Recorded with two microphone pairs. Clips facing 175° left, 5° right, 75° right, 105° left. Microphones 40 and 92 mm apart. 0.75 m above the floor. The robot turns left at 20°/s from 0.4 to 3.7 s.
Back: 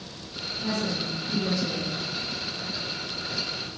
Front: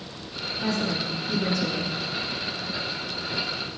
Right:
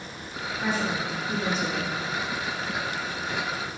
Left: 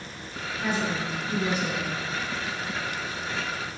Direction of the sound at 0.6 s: Straight ahead.